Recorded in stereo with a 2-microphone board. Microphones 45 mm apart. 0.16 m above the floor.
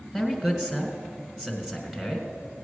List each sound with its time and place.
0.1 s a man speaking: 15° right (ahead or behind), 1.9 m